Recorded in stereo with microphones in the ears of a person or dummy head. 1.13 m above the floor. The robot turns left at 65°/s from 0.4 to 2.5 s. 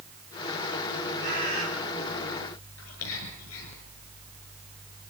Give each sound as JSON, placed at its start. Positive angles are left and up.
{"t": 1.2, "sound": "a bird", "azimuth_deg": -50, "distance_m": 5.5}
{"t": 2.8, "sound": "whispering", "side_deg": 85, "distance_m": 7.0}